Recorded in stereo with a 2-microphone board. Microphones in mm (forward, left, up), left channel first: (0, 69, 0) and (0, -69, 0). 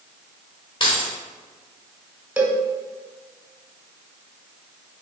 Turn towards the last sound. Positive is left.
turn(degrees=-10)  # may be behind; listen again after turning